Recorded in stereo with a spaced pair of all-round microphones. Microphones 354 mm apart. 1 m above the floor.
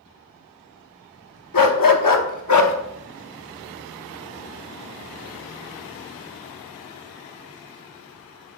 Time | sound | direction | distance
1.5 | a dog barking | 65° left (ahead or behind) | 0.9 m